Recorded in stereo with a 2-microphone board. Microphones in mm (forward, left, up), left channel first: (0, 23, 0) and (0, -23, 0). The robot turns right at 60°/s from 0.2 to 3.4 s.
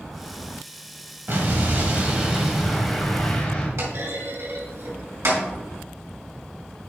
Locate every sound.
1.3 s an explosion: 85° right, 1.6 m; by 3.7 s 40° left, 1.6 m
3.8 s a clunk: 85° right, 2.5 m